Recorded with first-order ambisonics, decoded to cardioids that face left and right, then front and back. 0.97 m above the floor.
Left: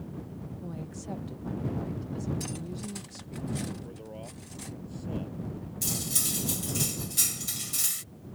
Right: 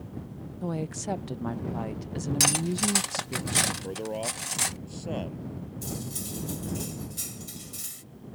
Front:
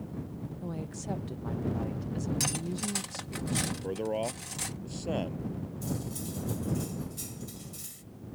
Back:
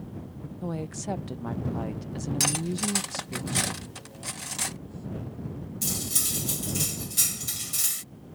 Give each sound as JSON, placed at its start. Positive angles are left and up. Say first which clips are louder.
{"t": 0.6, "sound": "a woman speaking", "louder": "right 11 dB, back 7 dB", "azimuth_deg": -120}
{"t": 2.4, "sound": "cutlery clinking", "louder": "right 14 dB, back 8 dB", "azimuth_deg": -110}
{"t": 3.8, "sound": "a man speaking", "louder": "right 11 dB, front 9 dB", "azimuth_deg": -35}
{"t": 5.8, "sound": "cutlery clinking", "louder": "left 8 dB, back 11 dB", "azimuth_deg": 145}